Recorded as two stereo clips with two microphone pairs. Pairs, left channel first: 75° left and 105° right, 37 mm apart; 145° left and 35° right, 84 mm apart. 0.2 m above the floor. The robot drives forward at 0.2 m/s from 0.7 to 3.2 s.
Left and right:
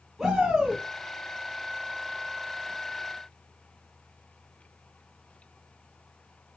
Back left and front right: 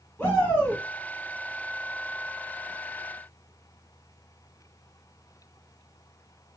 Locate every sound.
0.2 s a shout: 175° right, 1.1 m